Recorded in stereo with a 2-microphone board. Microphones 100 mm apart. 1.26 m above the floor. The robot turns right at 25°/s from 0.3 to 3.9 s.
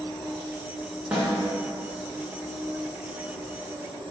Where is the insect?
165° left, 1.8 m; by 4.1 s 105° right, 1.8 m.